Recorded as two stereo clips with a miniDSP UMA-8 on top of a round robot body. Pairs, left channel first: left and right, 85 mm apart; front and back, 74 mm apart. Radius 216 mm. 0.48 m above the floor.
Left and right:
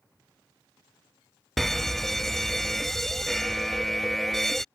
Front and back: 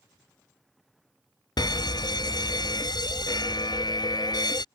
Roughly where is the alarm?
Ahead.